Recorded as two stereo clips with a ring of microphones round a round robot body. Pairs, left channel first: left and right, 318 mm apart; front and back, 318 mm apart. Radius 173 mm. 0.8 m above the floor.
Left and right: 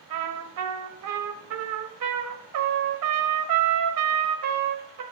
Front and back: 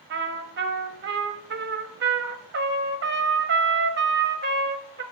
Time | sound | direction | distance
0.1 | a trumpet | 125° right | 0.9 m